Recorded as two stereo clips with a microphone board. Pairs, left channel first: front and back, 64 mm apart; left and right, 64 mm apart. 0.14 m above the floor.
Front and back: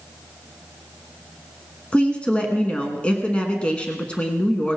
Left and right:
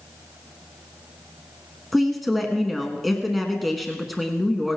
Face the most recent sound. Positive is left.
turn(degrees=0)